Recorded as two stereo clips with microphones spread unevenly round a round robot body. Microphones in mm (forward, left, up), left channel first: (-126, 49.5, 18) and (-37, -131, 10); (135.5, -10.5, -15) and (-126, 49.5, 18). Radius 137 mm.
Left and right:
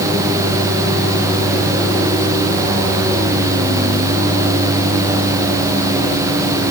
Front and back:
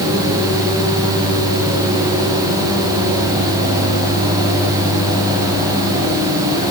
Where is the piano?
I don't hear a piano.